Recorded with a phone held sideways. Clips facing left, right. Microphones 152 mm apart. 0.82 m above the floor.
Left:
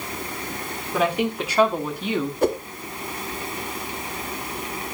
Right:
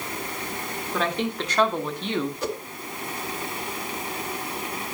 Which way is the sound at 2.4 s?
55° left (ahead or behind).